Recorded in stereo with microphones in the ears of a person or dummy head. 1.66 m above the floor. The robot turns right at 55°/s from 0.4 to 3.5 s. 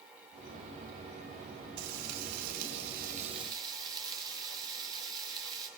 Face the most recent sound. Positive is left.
turn(degrees=-25)